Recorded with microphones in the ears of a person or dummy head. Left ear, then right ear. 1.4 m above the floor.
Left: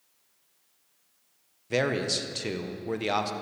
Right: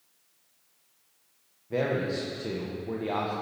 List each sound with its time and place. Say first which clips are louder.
1.7 s a man speaking: left 2 dB; 70° left (ahead or behind), 1.2 m